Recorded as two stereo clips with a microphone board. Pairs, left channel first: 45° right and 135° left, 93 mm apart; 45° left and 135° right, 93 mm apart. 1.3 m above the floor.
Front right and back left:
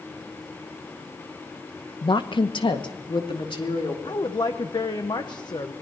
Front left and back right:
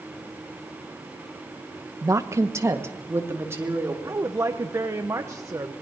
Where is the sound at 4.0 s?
80° right, 1.1 m.